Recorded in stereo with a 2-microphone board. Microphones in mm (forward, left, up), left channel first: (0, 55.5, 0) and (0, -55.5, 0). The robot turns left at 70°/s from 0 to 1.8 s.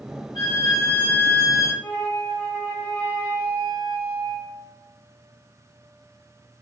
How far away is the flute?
About 0.6 m.